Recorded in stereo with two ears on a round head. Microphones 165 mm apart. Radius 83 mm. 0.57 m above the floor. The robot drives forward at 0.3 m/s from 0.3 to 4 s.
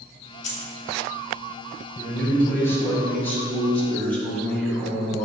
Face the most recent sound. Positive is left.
turn(degrees=10)  # may be behind; listen again after turning